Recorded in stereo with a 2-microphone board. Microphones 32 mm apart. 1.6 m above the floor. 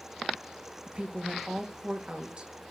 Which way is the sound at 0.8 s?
30° right (ahead or behind).